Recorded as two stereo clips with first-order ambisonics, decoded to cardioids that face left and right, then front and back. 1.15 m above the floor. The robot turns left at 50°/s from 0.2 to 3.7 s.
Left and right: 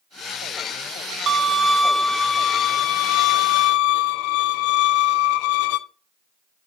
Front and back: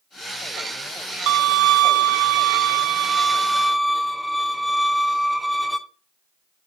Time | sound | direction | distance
1.3 | a violin | 150° right | 0.5 m